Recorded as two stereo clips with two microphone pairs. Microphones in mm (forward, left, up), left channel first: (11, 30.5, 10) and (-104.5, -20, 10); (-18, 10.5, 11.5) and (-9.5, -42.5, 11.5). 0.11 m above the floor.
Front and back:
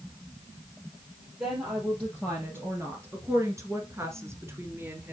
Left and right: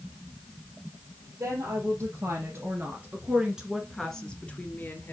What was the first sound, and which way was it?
A woman speaking, 85° right.